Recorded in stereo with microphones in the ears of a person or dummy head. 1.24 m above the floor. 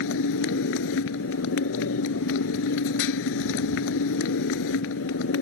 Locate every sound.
0.0 s a motorcycle: 65° left (ahead or behind)